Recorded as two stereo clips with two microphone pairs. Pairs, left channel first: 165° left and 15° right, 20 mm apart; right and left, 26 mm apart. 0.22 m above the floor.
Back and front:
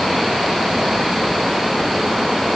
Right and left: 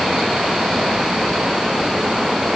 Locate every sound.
Only background noise.